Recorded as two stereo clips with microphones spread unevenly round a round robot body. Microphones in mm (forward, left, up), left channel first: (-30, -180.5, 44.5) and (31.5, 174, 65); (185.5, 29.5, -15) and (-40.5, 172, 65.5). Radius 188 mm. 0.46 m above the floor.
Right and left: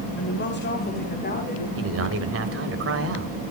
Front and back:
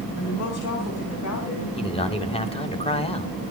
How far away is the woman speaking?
About 3 m.